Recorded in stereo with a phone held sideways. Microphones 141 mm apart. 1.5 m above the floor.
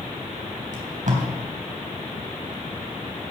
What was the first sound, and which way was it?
Tape being pulled, 65° right (ahead or behind).